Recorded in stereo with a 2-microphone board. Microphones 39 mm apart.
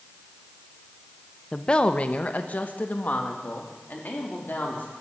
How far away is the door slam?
No door slam in this recording.